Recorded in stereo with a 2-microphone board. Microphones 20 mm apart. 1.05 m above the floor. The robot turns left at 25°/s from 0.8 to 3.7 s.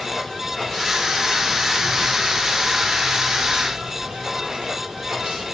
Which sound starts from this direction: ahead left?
Running water, at 0.0 s.